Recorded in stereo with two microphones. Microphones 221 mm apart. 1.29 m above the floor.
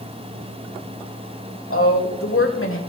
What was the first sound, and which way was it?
A woman speaking, 75° left (ahead or behind).